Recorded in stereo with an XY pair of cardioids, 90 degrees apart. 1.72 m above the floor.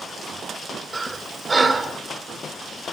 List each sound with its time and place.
0.9 s breathing: 30° right, 0.9 m